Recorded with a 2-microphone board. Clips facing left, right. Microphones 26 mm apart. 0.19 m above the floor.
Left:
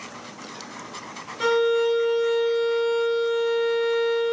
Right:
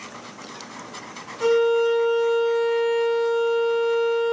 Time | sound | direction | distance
1.4 | a violin | 75° left (ahead or behind) | 0.7 m